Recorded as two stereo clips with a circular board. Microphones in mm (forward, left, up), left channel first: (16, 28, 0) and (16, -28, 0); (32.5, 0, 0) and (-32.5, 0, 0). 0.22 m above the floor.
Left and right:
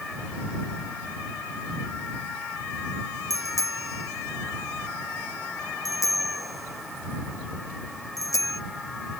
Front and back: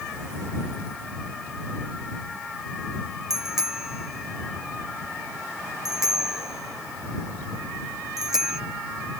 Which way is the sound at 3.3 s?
95° left.